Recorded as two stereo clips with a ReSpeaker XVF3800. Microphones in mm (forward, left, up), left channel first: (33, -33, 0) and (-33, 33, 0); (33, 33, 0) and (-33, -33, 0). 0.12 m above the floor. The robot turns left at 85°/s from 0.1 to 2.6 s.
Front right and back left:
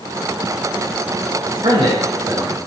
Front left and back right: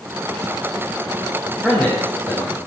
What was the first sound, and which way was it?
A man speaking, 140° left.